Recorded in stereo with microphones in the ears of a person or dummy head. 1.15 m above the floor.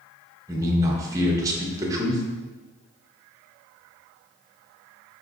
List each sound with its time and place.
0.5 s a man speaking: 20° right (ahead or behind), 0.8 m